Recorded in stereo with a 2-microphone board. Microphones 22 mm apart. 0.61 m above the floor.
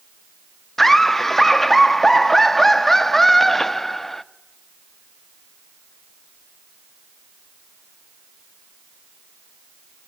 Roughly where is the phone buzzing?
I don't hear a phone buzzing.